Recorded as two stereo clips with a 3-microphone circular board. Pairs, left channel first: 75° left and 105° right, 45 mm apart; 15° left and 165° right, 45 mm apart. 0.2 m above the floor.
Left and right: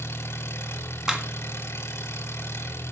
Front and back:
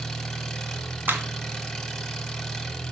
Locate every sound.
0.0 s an engine running: 100° left, 3 m
1.1 s a clap: straight behind, 1.8 m